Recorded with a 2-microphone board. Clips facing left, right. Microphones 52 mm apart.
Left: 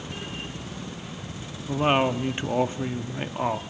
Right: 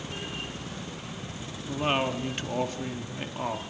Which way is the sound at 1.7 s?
20° left (ahead or behind).